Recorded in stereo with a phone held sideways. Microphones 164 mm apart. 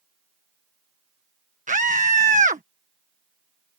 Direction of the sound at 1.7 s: 50° right (ahead or behind).